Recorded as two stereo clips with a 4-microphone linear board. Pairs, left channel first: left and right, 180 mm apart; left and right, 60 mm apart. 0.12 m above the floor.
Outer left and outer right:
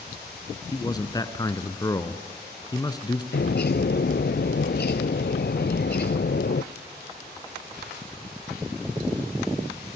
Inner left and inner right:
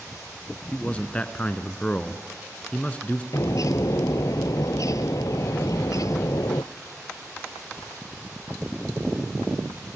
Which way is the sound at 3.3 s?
70° left (ahead or behind).